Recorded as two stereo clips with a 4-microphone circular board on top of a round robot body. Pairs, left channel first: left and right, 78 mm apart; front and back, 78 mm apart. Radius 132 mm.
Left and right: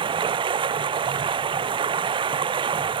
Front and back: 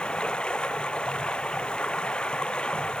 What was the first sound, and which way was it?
Running water, 80° right.